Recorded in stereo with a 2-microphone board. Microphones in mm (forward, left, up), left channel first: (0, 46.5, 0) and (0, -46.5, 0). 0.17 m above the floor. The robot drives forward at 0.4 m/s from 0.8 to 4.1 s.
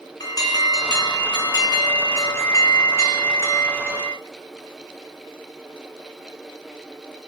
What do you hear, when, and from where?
0.2 s an alarm: 45° left (ahead or behind), 1.8 m; by 4.2 s 30° left (ahead or behind), 2.5 m